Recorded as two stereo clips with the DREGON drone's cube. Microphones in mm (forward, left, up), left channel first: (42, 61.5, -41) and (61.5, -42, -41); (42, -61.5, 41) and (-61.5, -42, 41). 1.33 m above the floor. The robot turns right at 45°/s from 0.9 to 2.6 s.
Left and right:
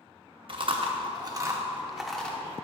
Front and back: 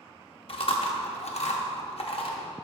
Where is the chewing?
40° right, 0.8 m; by 2.4 s 25° left, 0.8 m.